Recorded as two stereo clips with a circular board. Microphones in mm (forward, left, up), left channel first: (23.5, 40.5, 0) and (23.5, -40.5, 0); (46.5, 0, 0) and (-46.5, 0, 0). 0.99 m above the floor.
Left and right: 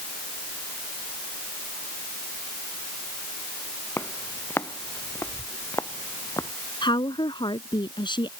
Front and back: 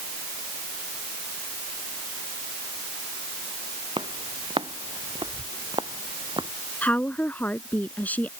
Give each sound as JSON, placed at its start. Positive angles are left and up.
{"t": 4.0, "sound": "footsteps", "azimuth_deg": 155}
{"t": 6.8, "sound": "a woman speaking", "azimuth_deg": 75}